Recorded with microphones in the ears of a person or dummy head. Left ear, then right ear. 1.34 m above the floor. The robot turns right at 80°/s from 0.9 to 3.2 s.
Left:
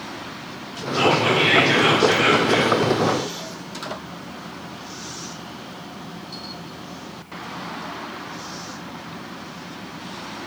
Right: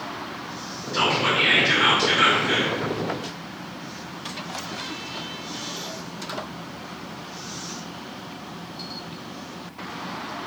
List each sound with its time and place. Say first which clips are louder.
0.9 s whispering: left 3 dB; 165° right, 1.0 m; by 2.8 s 15° right, 1.0 m